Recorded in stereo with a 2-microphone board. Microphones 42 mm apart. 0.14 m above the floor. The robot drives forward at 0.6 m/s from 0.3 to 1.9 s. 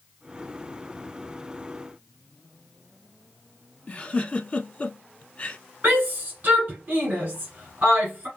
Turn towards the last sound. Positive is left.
turn(degrees=-35)  # may be behind; listen again after turning